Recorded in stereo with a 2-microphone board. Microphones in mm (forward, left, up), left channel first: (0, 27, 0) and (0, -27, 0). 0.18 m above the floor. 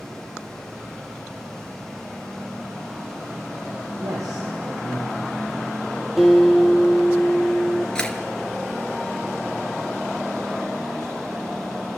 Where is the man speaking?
80° right, 6.5 m.